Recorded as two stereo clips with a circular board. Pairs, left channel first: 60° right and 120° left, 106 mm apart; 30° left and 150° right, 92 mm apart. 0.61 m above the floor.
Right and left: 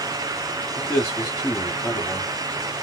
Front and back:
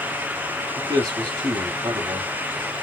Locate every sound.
0.8 s a man speaking: 130° right, 1.7 m